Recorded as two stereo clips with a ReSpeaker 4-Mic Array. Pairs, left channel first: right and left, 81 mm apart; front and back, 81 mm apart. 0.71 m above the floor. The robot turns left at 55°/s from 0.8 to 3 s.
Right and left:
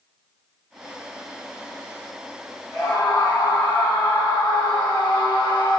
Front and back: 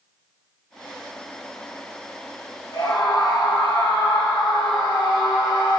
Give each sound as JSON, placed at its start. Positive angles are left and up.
{"t": 2.7, "sound": "a scream", "azimuth_deg": -10, "distance_m": 4.0}